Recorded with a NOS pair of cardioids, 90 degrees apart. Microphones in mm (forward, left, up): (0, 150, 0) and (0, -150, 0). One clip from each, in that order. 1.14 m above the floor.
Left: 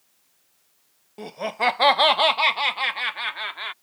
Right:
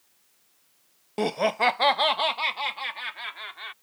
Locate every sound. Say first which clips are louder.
1.2 s laughter: right 2 dB; 55° right; by 3.7 s 50° left